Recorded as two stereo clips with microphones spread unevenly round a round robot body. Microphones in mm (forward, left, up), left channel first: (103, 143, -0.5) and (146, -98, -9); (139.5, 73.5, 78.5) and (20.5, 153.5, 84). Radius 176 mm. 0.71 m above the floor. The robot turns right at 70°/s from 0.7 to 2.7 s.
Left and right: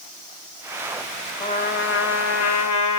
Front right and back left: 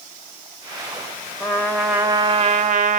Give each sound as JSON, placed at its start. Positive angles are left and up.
{"t": 1.4, "sound": "a trumpet", "azimuth_deg": 30, "distance_m": 1.2}